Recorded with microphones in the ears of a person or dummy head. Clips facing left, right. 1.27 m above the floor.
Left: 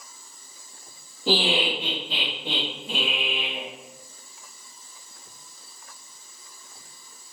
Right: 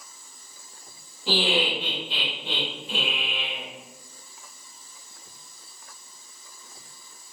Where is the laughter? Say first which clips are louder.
Left 1 dB; 85° left, 1.6 m.